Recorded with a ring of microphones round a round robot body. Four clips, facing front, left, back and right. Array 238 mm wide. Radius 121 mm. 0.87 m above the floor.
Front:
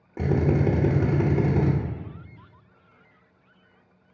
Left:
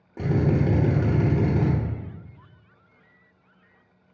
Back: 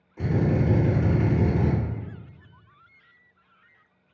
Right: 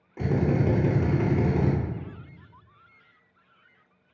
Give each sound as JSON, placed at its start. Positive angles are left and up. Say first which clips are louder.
{"t": 0.2, "sound": "a drill", "louder": "left 1 dB, front 1 dB", "azimuth_deg": 15, "distance_m": 0.7}